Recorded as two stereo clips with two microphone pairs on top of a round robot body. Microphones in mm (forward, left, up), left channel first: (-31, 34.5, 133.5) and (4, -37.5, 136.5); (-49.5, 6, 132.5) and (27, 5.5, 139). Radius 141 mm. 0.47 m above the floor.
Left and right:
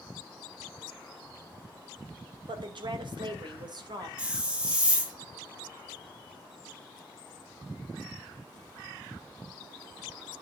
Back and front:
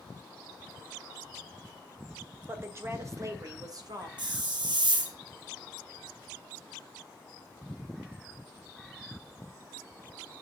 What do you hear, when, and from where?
2.5 s a woman speaking: 65° right, 2 m; by 4.1 s 35° right, 2.5 m
4.2 s a hiss: 10° left, 2 m